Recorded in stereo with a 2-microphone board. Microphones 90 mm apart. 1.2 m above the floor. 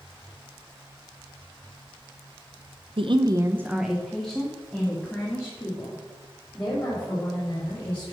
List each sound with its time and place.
3.0 s a woman speaking: 65° right (ahead or behind), 0.6 m; by 8.1 s 30° left (ahead or behind), 4.5 m